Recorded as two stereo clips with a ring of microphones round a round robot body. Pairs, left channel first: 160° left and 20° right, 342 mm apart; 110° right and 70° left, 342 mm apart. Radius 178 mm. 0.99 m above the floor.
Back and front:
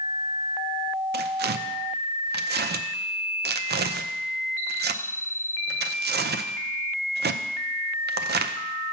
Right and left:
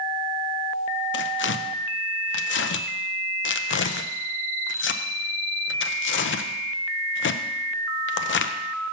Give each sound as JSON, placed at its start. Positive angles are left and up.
{"t": 1.1, "sound": "tearing paper", "azimuth_deg": -70, "distance_m": 0.6}